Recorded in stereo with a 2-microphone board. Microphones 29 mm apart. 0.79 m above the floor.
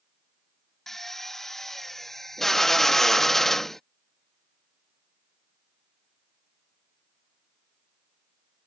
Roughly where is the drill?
Centre.